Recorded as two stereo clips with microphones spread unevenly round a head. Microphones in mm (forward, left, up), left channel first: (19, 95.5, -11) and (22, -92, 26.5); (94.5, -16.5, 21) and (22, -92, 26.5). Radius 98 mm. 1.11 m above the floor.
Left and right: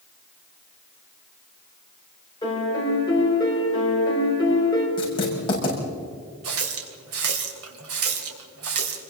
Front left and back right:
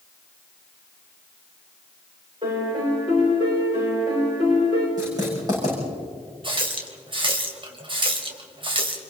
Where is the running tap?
95° right, 3.5 m.